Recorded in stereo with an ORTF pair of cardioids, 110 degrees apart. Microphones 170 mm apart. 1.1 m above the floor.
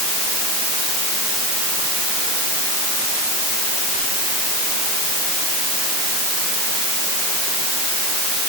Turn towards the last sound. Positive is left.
No sound to turn to.